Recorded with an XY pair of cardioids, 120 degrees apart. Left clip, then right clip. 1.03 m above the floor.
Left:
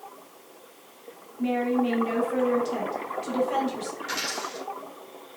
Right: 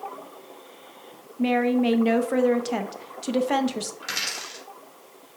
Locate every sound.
1.4 s a woman speaking: 60° right, 0.5 m
4.0 s a dropped coin: 70° right, 1.6 m